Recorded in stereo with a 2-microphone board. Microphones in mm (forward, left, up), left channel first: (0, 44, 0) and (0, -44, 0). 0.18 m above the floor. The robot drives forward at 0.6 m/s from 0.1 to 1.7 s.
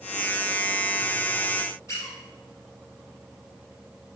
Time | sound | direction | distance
1.9 | a squeak | 35° left (ahead or behind) | 3 m